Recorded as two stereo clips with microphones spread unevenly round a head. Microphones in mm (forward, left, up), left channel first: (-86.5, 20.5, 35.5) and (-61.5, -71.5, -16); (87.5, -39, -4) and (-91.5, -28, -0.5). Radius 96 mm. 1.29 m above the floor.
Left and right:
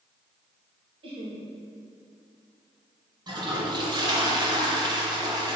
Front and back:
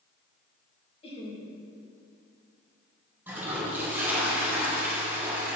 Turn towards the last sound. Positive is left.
turn(degrees=-105)